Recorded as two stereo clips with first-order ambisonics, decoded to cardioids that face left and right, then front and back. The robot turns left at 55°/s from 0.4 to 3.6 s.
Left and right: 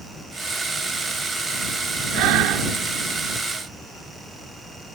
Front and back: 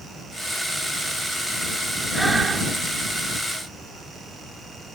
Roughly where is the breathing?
Right.